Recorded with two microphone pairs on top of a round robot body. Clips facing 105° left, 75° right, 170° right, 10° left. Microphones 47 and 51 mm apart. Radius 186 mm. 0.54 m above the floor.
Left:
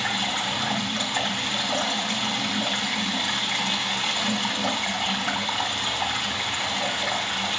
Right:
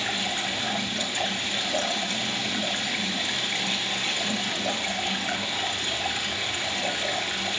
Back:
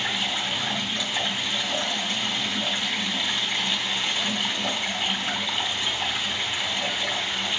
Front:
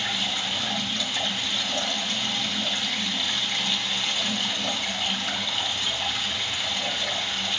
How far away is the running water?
About 3 m.